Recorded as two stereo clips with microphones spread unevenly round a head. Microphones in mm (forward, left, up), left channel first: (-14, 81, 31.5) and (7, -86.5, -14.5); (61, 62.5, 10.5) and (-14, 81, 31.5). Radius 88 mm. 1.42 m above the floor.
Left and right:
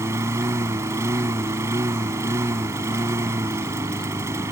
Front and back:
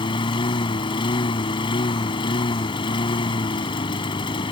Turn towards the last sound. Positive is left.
turn(degrees=-5)